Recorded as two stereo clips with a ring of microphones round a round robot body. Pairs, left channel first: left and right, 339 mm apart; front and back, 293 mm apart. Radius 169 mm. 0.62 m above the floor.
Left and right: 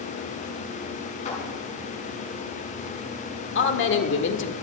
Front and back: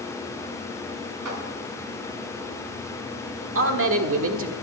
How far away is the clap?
About 6 m.